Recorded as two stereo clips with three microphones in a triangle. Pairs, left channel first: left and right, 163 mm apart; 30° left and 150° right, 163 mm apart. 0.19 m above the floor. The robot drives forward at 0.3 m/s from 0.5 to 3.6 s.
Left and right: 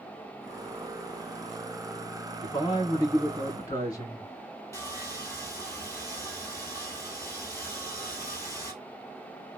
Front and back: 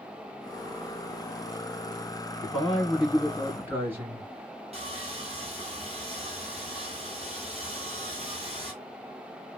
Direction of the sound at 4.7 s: 165° left.